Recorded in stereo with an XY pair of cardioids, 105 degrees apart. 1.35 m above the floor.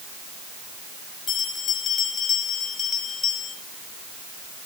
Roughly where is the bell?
Ahead left.